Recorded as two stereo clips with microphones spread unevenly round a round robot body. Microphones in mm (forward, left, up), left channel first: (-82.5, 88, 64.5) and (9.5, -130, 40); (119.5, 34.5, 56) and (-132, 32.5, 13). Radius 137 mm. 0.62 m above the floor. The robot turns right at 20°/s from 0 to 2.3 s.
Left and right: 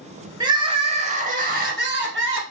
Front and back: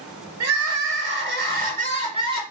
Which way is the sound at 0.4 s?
145° right.